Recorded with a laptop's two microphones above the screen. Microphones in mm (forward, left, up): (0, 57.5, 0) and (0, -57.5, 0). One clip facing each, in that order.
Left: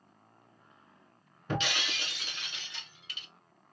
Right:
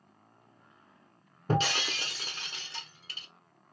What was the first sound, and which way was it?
Breaking glass, 40° right (ahead or behind).